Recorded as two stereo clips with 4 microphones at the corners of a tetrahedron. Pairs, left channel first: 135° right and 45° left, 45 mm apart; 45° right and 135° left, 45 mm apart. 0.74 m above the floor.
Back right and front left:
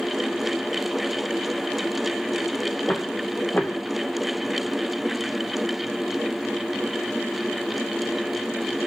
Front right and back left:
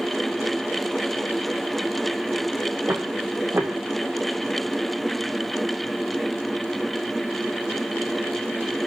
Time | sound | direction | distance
2.9 | footsteps | 160° left | 5.5 m